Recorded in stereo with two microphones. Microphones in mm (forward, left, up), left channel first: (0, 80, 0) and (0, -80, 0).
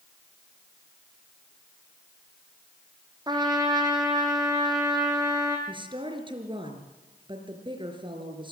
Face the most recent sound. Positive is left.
turn(degrees=-30)  # may be behind; listen again after turning